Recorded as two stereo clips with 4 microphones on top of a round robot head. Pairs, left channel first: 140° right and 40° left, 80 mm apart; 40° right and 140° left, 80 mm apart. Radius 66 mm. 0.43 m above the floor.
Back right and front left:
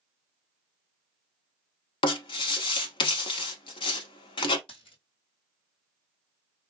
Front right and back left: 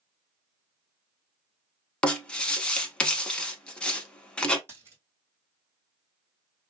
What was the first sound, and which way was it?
Writing, 115° right.